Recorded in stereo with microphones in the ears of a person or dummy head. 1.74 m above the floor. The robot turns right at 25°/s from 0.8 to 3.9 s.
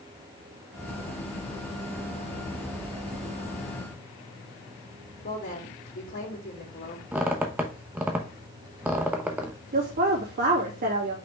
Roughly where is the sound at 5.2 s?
Left.